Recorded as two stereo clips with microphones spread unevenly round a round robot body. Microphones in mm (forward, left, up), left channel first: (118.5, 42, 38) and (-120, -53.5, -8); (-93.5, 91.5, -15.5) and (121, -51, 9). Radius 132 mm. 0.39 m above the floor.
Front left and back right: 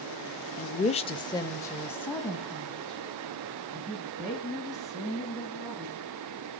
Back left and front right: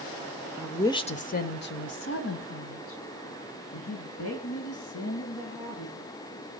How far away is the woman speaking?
About 0.8 m.